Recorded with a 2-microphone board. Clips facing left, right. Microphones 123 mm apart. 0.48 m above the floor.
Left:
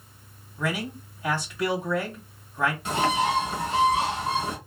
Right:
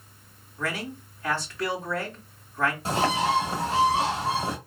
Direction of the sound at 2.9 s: 35° right (ahead or behind).